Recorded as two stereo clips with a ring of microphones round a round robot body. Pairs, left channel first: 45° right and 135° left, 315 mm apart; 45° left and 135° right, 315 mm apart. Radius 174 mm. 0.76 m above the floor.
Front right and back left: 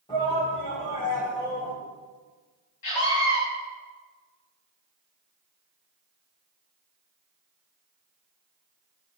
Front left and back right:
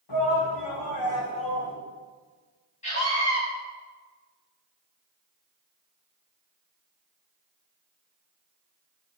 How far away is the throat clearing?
I don't hear throat clearing.